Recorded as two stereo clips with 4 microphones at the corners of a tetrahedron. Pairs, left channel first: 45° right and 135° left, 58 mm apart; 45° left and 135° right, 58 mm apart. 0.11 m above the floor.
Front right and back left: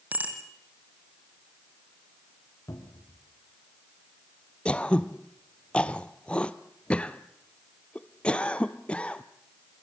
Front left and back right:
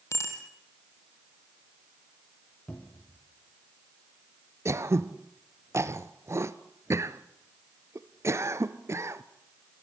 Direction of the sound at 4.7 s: 115° right.